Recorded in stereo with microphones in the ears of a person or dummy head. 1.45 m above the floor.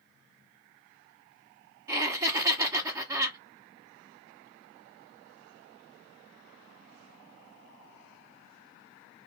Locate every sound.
1.9 s laughter: 15° right (ahead or behind), 0.8 m